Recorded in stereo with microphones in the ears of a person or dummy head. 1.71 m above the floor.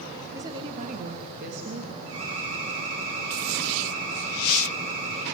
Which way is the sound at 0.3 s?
15° right (ahead or behind).